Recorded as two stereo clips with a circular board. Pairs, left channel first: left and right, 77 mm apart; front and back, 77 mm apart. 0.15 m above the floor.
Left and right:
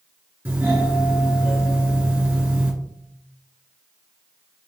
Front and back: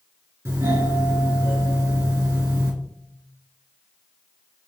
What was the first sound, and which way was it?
A doorbell, 145° right.